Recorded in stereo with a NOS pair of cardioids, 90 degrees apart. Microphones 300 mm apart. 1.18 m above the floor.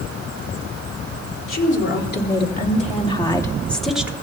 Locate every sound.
1.5 s a woman speaking: 40° left, 3 m; by 4.1 s 5° right, 1.9 m